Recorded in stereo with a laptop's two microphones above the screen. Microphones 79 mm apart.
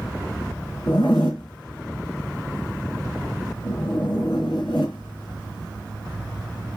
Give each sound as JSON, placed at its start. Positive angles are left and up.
{"t": 0.9, "sound": "a zipper", "side_deg": 75, "distance_m": 2.5}